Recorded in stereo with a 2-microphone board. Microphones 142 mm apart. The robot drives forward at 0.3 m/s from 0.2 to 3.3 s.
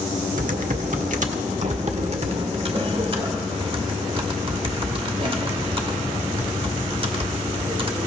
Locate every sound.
0.4 s typing on a keyboard: 75° right (ahead or behind), 0.9 m; by 8.1 s 40° right (ahead or behind), 1.3 m